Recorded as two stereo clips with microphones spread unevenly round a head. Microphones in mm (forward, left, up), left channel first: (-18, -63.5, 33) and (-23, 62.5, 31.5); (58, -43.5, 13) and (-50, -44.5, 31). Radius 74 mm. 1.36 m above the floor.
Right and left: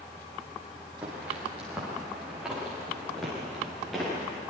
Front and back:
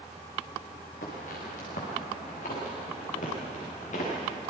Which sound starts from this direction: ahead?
Footsteps, at 1.0 s.